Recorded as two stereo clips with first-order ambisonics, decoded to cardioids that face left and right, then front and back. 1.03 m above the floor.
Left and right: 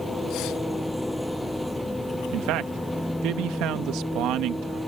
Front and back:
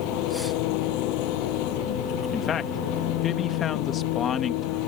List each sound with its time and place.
0.0 s an engine running: straight ahead
2.3 s a man speaking: 60° right